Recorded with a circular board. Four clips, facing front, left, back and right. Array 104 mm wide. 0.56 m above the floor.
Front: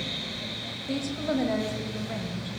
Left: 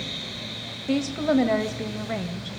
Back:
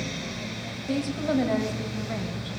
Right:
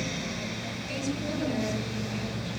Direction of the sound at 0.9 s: 100° left.